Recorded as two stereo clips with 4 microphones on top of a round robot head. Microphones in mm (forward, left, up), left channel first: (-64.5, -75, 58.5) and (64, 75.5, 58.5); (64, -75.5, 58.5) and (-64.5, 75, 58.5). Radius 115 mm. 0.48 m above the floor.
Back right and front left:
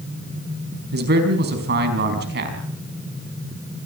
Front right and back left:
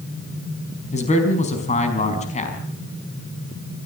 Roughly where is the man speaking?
Ahead.